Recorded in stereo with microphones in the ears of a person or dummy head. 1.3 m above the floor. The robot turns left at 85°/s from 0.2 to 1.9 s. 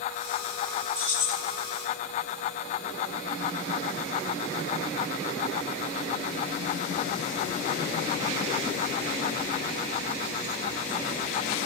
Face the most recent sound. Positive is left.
turn(degrees=180)